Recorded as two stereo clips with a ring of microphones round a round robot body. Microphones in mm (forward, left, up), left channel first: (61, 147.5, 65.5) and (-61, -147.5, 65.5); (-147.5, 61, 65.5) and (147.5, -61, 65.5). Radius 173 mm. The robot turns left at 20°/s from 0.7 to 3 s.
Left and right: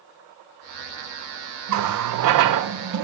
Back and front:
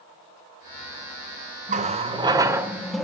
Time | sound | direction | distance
1.7 | a running tap | 85° right | 0.7 m